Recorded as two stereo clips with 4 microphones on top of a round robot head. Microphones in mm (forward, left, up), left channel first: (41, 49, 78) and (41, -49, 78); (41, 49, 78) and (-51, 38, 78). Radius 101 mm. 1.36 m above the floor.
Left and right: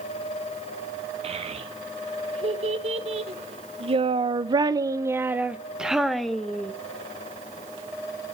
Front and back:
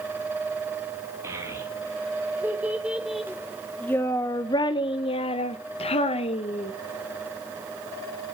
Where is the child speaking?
110° right, 2 m; by 6.7 s 10° left, 1.5 m.